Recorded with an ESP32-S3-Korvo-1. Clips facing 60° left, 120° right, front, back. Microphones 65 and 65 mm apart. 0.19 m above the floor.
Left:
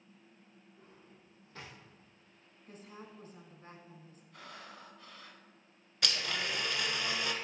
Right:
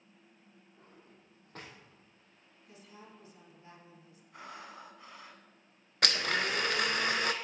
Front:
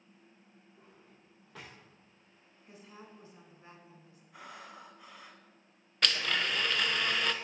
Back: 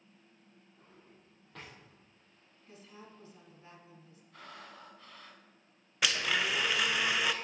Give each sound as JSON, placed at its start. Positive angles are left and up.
{"t": 0.8, "sound": "a drawer", "azimuth_deg": -85, "distance_m": 2.5}
{"t": 2.7, "sound": "a woman speaking", "azimuth_deg": 65, "distance_m": 1.4}
{"t": 4.3, "sound": "breathing", "azimuth_deg": -70, "distance_m": 0.9}
{"t": 6.0, "sound": "a blender", "azimuth_deg": -100, "distance_m": 0.5}